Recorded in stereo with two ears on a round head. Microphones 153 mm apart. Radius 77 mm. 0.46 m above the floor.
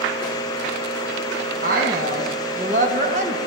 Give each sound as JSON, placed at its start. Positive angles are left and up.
{"t": 1.6, "sound": "a woman speaking", "side_deg": -55, "distance_m": 3.5}